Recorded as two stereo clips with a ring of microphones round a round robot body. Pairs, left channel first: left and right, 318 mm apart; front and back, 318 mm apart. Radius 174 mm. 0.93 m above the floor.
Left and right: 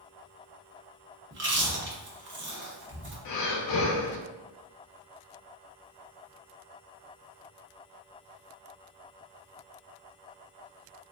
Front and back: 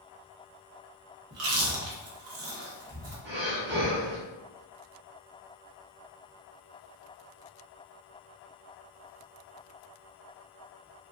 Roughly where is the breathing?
Behind left.